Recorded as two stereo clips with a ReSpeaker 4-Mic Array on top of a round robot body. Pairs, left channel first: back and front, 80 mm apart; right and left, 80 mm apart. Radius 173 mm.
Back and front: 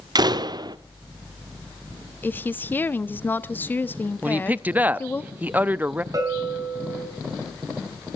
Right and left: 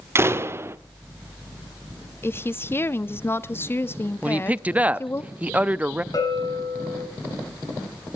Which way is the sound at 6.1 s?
45° right.